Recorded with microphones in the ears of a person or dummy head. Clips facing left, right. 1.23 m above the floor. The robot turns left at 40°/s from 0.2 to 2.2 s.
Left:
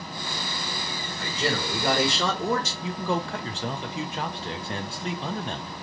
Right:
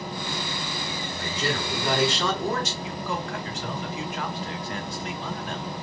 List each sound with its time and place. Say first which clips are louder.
1.2 s a man speaking: left 1 dB; 135° left, 1.8 m; by 2.7 s 95° left, 1.8 m
2.8 s a man speaking: left 3 dB; 30° left (ahead or behind), 0.5 m